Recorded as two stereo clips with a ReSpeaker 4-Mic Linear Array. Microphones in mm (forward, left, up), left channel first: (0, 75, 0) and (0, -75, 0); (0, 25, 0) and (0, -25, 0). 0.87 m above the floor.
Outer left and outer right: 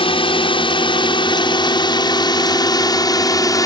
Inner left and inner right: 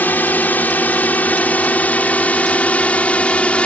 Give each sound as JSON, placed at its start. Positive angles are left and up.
{"t": 0.0, "sound": "a drone", "side_deg": 35}